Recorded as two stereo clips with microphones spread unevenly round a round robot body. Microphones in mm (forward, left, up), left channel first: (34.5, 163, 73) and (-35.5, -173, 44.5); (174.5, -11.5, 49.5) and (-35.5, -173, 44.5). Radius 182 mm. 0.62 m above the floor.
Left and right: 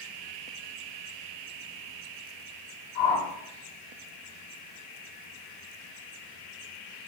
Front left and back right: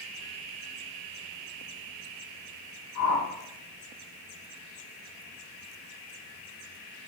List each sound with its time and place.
3.0 s a whoosh: 60° left, 7 m